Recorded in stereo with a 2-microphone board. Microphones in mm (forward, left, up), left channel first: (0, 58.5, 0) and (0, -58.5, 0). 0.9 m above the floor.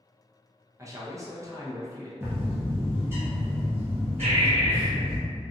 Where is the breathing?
70° right (ahead or behind), 0.8 m.